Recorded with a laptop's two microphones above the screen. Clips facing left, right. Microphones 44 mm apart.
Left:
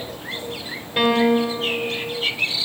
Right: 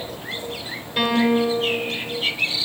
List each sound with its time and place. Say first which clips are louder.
1.0 s a piano: left 2 dB; 15° left (ahead or behind), 5 m